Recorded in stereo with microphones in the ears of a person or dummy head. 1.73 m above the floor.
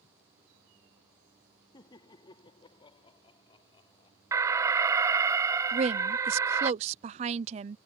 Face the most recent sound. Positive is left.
turn(degrees=-35)  # may be behind; listen again after turning